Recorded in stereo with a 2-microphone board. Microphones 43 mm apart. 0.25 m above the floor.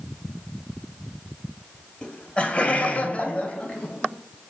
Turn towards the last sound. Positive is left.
turn(degrees=25)  # may be behind; listen again after turning